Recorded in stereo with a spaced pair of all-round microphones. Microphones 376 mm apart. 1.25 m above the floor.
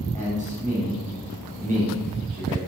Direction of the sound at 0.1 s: 20° right (ahead or behind).